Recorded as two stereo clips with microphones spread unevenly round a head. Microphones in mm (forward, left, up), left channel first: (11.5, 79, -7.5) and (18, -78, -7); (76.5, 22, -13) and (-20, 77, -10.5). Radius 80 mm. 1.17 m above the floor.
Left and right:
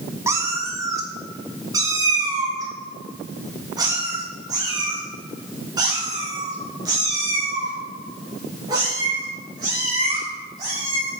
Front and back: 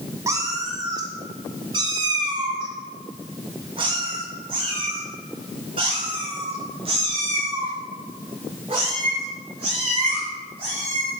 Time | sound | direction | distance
0.3 | a cat meowing | 155° right | 1.1 m